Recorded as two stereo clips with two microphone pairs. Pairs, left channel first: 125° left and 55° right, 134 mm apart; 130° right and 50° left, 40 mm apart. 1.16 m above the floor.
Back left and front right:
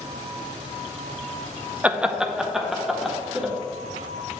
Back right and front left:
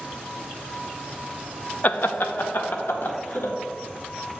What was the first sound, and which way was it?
Laughter, 130° right.